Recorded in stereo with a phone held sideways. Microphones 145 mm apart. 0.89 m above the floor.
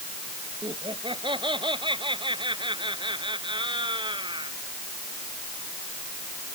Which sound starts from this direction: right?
Laughter, at 0.6 s.